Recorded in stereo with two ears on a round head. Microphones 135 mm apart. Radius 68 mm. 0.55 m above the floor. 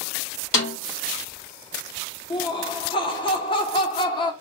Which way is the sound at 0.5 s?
75° left (ahead or behind).